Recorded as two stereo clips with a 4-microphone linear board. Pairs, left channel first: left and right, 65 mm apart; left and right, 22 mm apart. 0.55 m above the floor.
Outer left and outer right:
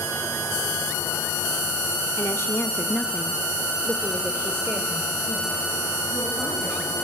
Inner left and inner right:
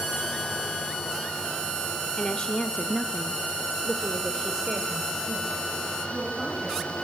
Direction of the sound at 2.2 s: 50° left (ahead or behind).